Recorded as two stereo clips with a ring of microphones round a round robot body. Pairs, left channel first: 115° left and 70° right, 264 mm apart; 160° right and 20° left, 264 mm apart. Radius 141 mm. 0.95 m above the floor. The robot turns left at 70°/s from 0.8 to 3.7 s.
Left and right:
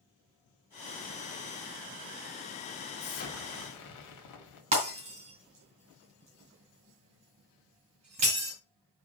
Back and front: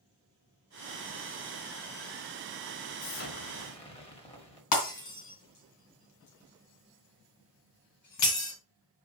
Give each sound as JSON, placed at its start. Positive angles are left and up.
{"t": 3.0, "sound": "an explosion", "azimuth_deg": 180, "distance_m": 2.0}
{"t": 4.7, "sound": "breaking glass", "azimuth_deg": -135, "distance_m": 3.5}